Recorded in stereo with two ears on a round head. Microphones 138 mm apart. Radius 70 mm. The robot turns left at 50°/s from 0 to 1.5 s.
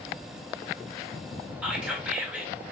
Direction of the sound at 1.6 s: 10° right (ahead or behind).